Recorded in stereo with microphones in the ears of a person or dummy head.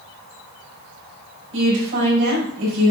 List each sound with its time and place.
1.5 s a woman speaking: 70° right (ahead or behind), 5 m